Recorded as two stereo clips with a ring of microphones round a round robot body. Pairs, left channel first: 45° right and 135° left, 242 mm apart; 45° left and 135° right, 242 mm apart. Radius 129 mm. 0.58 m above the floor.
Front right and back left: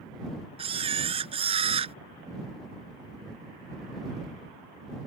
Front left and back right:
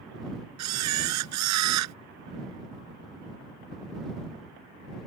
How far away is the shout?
No shout in this recording.